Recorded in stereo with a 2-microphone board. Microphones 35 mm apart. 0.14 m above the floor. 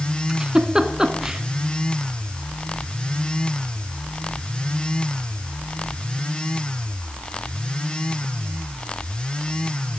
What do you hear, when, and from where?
0.3 s a giggle: 20° right (ahead or behind), 0.7 m